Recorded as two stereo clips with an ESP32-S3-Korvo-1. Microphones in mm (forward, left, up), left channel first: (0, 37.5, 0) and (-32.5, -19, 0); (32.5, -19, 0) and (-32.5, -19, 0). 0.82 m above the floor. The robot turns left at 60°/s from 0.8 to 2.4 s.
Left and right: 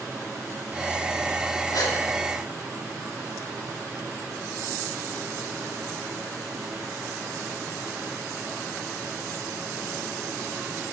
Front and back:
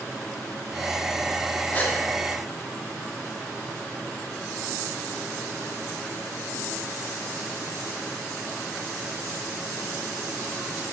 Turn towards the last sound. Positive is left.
turn(degrees=25)